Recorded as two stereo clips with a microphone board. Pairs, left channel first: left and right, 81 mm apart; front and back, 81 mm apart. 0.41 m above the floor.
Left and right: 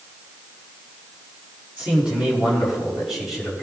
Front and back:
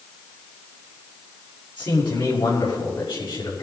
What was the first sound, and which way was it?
A man speaking, 10° right.